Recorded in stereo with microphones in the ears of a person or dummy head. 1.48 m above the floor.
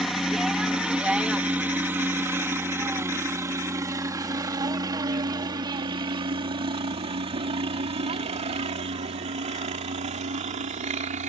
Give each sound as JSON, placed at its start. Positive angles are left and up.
{"t": 0.0, "sound": "a helicopter", "side_deg": -5}